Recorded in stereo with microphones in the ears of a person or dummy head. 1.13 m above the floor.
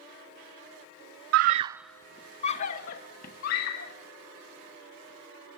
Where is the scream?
60° right (ahead or behind), 0.6 m; by 3.9 s 55° left (ahead or behind), 2 m.